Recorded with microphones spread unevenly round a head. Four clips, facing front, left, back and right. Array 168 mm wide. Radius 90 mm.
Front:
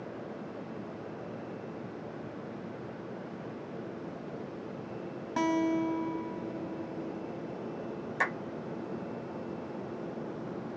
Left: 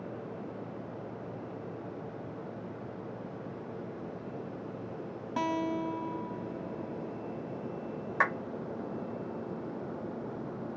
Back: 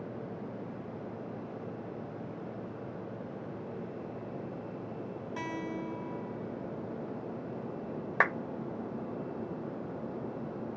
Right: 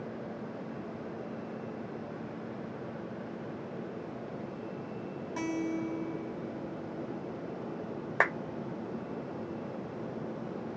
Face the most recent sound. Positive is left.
turn(degrees=-130)